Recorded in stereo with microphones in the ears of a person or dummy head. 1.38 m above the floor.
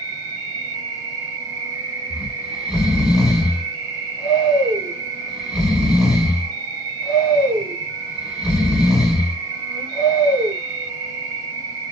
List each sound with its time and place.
0.0 s an insect: 35° right (ahead or behind), 1.4 m
2.1 s snoring: 5° right (ahead or behind), 1.1 m